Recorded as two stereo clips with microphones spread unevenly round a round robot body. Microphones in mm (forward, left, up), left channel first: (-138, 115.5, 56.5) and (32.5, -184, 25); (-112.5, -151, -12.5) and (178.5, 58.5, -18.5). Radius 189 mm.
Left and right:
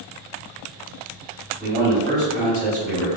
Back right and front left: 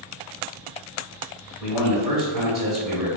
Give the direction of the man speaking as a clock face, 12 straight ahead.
2 o'clock.